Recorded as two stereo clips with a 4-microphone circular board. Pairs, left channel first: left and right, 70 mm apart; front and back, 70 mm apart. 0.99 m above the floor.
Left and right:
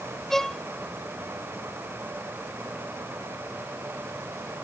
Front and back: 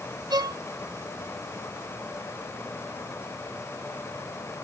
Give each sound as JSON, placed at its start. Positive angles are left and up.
{"t": 0.3, "sound": "a violin", "azimuth_deg": 175}